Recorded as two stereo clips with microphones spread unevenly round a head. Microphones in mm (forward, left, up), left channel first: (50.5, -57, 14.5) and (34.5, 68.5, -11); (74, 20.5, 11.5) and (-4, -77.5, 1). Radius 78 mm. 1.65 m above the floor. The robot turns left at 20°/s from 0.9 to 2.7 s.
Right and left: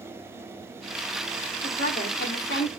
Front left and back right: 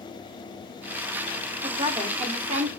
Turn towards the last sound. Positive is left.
turn(degrees=-100)